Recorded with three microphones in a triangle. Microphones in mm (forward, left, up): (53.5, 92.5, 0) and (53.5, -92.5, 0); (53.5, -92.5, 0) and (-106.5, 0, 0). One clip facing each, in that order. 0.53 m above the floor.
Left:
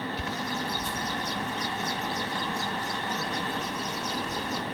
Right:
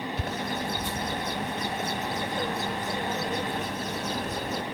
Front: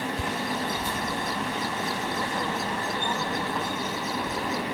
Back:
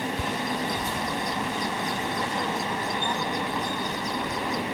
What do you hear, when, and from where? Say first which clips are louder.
0.2 s a bird: right 1 dB, back 1 dB; 115° right